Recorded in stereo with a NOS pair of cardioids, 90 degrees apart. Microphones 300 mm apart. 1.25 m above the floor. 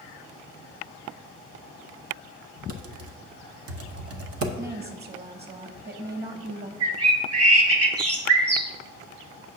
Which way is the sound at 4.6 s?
35° right.